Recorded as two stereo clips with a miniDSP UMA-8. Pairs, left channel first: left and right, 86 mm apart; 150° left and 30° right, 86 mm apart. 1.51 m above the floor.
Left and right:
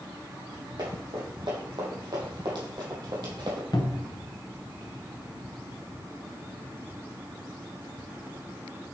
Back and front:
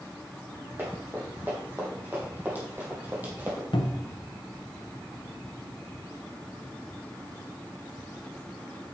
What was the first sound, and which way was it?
Running footsteps, 95° right.